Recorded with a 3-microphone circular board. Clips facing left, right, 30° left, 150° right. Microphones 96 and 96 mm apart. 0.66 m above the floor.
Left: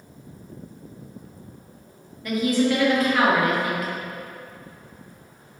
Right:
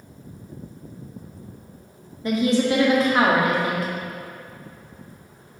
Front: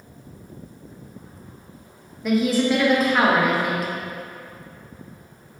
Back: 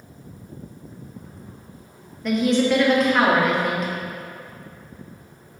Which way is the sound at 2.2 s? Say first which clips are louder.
Right 1 dB, back 1 dB; 50° right.